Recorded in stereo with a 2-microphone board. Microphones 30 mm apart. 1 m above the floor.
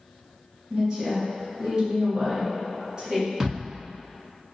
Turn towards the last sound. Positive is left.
turn(degrees=-25)  # may be behind; listen again after turning